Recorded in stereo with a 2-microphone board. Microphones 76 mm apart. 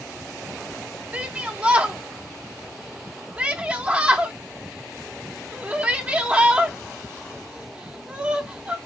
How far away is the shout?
About 0.8 m.